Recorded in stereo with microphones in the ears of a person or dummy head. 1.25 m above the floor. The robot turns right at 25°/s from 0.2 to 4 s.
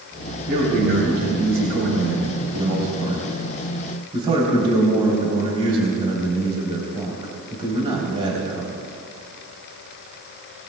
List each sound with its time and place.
0.5 s a man speaking: 125° right, 3 m; by 8.8 s 35° right, 3 m